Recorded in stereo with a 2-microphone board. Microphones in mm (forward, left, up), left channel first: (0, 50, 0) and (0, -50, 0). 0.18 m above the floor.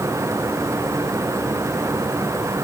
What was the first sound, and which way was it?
Only background noise.